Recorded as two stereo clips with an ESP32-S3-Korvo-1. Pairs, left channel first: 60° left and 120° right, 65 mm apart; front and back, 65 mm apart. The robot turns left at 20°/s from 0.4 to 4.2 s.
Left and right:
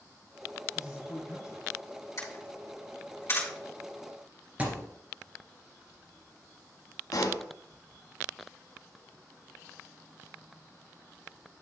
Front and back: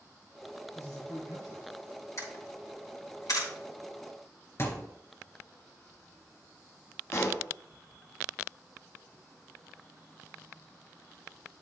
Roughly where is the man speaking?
Ahead left.